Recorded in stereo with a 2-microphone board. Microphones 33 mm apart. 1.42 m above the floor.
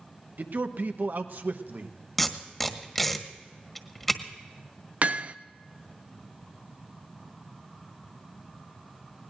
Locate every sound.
0.4 s a man speaking: 65° right (ahead or behind), 1.1 m
2.2 s tape being pulled: 5° left (ahead or behind), 1.4 m
5.0 s hammering: 50° right (ahead or behind), 0.5 m